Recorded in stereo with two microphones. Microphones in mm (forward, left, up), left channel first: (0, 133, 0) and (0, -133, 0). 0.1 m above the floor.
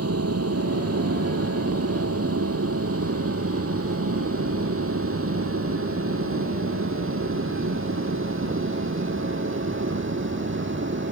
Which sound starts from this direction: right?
An aircraft, at 0.0 s.